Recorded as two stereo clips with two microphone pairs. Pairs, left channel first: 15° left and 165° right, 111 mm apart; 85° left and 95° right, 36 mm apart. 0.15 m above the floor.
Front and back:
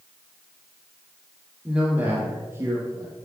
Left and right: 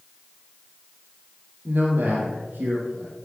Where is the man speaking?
85° right, 3.5 m; by 3.1 s 110° right, 4 m.